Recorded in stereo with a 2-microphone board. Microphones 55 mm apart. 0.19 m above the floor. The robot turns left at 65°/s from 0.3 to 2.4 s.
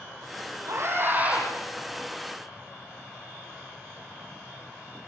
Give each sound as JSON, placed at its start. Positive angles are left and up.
{"t": 0.7, "sound": "a scream", "azimuth_deg": -115, "distance_m": 8.0}